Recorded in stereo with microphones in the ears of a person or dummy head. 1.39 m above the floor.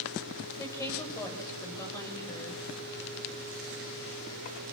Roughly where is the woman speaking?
Centre.